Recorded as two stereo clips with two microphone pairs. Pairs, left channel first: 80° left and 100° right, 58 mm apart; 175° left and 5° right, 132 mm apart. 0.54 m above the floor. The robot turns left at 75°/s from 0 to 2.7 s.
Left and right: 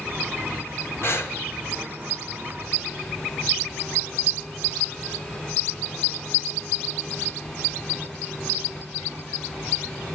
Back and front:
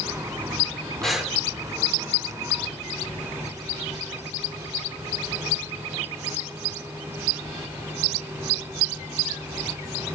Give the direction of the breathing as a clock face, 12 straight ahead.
9 o'clock.